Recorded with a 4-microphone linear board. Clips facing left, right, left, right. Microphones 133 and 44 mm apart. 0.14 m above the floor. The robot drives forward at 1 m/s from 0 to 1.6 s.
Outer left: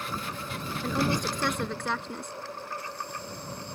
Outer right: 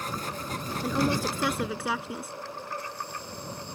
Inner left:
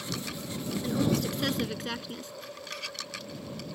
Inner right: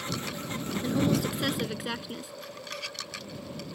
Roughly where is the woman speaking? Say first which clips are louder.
Outer right 1 dB, inner right 2 dB; centre.